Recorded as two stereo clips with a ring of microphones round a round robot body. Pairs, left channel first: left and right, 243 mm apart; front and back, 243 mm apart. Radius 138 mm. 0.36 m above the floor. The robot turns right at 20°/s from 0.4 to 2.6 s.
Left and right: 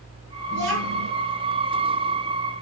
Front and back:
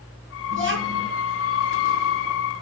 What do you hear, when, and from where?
0.5 s a child speaking: 150° right, 6.5 m; by 1.1 s 135° right, 6.5 m